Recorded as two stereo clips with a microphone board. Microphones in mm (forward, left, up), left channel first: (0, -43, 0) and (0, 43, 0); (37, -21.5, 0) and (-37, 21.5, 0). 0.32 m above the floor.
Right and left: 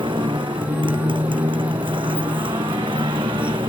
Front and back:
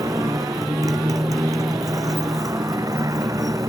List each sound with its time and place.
0.0 s a motorcycle: 105° left